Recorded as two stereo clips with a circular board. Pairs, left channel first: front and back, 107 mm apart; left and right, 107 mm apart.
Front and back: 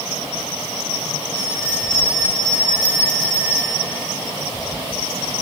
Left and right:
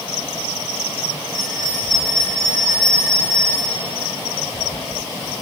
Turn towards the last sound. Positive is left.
turn(degrees=35)